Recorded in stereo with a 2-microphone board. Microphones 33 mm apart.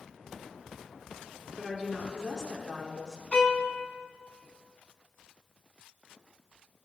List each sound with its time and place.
1.6 s a woman speaking: 20° left (ahead or behind), 1.3 m
3.3 s a violin: 35° left (ahead or behind), 0.9 m